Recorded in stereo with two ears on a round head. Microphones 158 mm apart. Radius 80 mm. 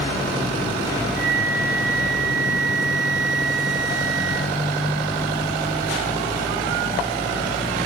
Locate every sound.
1.2 s a flute: 75° right (ahead or behind), 0.6 m